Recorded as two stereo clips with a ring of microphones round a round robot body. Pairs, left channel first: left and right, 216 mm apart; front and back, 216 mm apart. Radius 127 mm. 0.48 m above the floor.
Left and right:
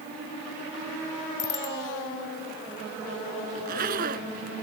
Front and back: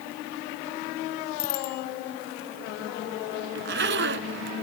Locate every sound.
1.4 s a bicycle bell: 55° left
3.5 s a zipper: 145° right